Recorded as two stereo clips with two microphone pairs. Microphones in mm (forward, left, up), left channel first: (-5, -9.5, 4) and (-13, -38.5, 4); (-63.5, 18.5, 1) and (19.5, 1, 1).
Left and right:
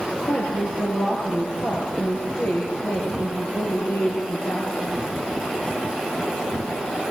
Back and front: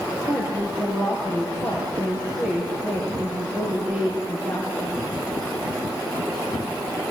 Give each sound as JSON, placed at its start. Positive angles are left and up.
{"t": 0.3, "sound": "a woman speaking", "azimuth_deg": 65, "distance_m": 6.0}